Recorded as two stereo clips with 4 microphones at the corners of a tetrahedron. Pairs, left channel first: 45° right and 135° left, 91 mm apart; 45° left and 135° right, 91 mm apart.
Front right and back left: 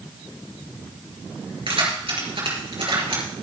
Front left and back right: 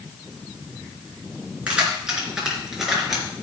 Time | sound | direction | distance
1.7 | keys jangling | 150° left | 3.5 m